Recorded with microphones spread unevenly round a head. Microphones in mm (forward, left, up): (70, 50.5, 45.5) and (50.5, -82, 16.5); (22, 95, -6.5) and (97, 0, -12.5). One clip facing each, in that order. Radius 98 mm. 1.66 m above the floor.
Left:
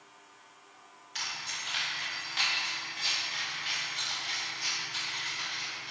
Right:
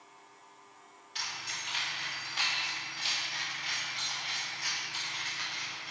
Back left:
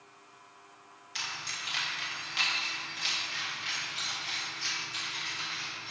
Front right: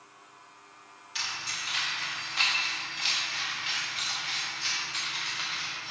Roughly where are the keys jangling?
Behind left.